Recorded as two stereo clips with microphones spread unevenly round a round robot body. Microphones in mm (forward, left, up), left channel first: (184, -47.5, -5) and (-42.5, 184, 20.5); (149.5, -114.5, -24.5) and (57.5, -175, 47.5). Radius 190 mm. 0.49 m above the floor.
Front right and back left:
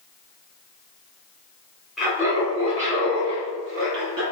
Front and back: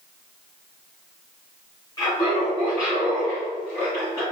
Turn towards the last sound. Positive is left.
turn(degrees=90)